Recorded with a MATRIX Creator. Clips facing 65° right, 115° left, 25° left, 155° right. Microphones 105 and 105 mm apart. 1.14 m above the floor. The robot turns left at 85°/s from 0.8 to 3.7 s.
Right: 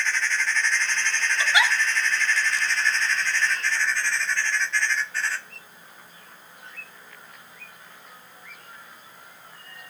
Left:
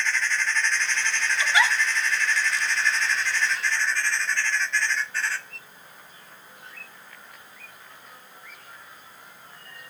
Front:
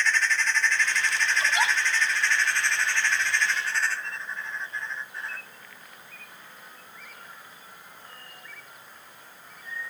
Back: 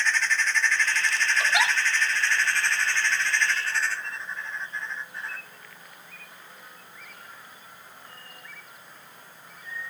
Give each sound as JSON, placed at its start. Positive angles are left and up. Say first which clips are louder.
{"t": 1.4, "sound": "a giggle", "louder": "even, back 1 dB", "azimuth_deg": -125, "distance_m": 3.0}